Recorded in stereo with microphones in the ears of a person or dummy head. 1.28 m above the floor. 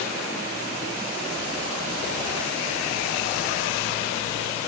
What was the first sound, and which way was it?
Only background noise.